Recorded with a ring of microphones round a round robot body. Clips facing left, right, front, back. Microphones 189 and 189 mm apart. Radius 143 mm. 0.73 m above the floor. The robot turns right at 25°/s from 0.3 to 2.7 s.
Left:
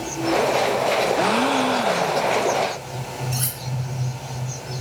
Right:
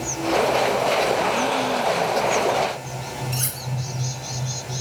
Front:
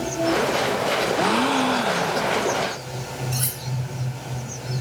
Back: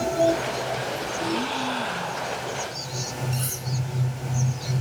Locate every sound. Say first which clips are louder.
1.2 s a gasp: left 2 dB, front 4 dB; 35° left, 0.5 m; by 2.5 s 65° left, 0.5 m
3.3 s cutlery clinking: left 1 dB, front 1 dB; 20° left, 9 m